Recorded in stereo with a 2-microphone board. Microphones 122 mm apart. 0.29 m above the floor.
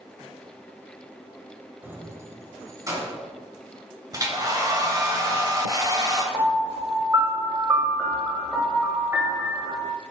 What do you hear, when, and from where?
1.8 s keys jangling: 15° right (ahead or behind), 0.7 m; by 3.2 s 25° right (ahead or behind), 1.7 m
4.1 s a hair dryer: 30° right (ahead or behind), 1.1 m
6.3 s a piano: 25° right (ahead or behind), 1.2 m